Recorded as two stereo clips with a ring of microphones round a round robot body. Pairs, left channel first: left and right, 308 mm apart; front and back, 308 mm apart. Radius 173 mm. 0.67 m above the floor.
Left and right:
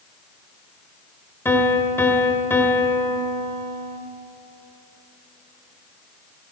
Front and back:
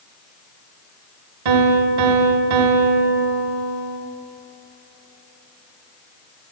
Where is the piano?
175° left, 1.5 m.